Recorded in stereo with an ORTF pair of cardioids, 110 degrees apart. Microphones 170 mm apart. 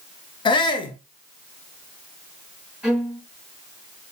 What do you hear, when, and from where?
0.5 s a shout: 30° left, 0.9 m
2.8 s a violin: straight ahead, 1.2 m